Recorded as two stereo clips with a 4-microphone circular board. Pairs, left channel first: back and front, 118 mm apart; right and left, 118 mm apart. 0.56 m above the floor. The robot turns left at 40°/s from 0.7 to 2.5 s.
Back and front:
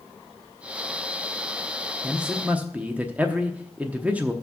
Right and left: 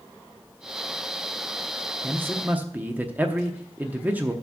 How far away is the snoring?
I don't hear snoring.